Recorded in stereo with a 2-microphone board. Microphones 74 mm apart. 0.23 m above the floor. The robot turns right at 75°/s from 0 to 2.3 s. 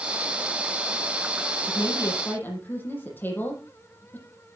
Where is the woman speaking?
110° left, 8 m; by 4.2 s 155° left, 8 m.